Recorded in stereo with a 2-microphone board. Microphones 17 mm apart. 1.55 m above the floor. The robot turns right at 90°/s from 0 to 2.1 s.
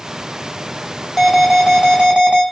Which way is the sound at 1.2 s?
170° left.